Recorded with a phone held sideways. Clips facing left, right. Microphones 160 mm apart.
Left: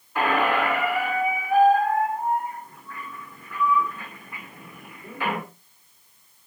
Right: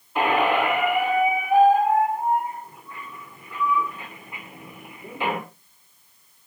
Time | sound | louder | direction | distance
0.1 | a squeak | right 2 dB | 20° right (ahead or behind) | 2 m